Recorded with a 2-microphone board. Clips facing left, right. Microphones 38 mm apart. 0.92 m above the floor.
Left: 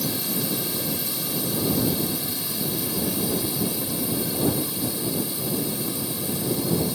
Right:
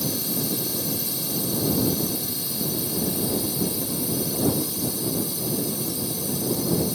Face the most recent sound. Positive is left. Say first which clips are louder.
# even
turn(degrees=30)  # may be behind; listen again after turning